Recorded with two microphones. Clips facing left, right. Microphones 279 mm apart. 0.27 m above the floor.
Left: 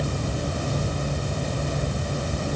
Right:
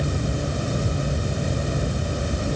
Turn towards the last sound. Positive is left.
No sound to turn to.